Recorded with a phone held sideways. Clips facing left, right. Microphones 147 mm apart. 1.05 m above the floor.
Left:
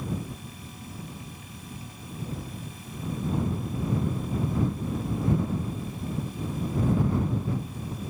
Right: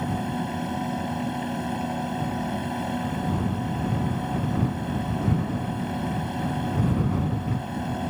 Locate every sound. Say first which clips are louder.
0.0 s a fan: right 8 dB; 75° right (ahead or behind)